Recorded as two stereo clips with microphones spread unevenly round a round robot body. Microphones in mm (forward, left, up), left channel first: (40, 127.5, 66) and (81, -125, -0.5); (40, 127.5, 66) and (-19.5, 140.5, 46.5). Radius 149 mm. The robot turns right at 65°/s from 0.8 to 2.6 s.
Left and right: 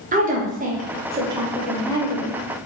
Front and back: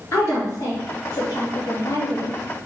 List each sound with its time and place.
0.1 s a woman speaking: 65° right, 1.0 m; by 2.4 s 40° left, 1.0 m